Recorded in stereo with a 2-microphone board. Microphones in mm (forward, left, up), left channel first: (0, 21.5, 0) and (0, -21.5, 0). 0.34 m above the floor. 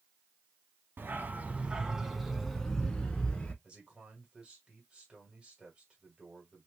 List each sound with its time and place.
1.0 s a dog barking: 60° right (ahead or behind), 0.7 m; by 3.5 s 20° left (ahead or behind), 1.3 m
3.6 s a man speaking: 25° right (ahead or behind), 1.7 m